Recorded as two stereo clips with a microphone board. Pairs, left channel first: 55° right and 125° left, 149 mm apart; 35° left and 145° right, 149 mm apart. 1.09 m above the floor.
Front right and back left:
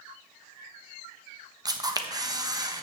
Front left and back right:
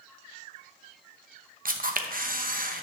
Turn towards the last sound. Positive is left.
turn(degrees=-170)